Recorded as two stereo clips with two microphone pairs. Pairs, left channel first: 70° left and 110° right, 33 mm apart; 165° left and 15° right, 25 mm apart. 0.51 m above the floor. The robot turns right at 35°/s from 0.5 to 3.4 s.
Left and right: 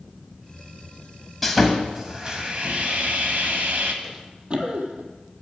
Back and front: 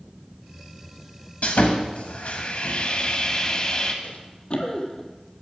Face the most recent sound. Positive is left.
turn(degrees=-125)